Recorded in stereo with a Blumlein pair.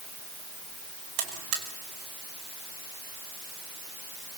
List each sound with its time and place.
1.2 s a buzzer: 45° right, 5 m